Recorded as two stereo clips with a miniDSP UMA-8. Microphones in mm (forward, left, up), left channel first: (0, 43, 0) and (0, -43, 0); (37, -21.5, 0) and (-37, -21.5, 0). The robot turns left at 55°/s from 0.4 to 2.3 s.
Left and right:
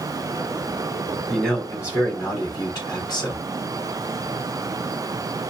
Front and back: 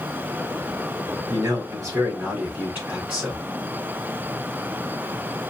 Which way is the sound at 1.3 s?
170° left.